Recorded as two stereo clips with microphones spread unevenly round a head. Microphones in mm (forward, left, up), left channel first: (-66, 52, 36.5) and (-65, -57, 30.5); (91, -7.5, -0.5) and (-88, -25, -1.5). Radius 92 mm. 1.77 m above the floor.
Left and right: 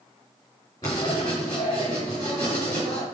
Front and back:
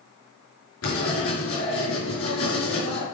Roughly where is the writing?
Ahead.